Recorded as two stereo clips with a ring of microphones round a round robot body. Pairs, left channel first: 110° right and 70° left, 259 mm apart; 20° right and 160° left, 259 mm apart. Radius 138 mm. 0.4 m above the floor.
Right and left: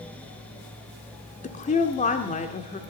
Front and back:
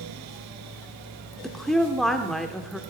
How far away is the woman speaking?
About 1.2 m.